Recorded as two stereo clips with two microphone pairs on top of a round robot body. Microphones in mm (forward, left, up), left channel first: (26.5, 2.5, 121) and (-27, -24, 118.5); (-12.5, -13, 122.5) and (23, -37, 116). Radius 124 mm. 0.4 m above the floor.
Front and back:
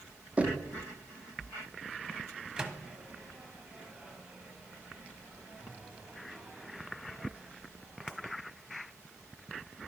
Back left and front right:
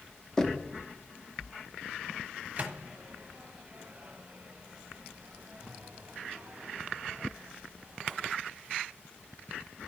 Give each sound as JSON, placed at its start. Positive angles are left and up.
{"t": 0.4, "sound": "knocking", "azimuth_deg": -130, "distance_m": 0.9}
{"t": 2.6, "sound": "a microwave", "azimuth_deg": -80, "distance_m": 1.1}